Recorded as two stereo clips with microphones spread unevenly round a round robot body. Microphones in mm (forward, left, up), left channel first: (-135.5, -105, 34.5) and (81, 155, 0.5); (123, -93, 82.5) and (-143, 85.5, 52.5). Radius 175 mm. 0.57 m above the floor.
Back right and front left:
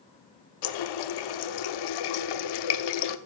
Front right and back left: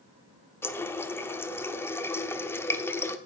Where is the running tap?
120° right, 0.9 m.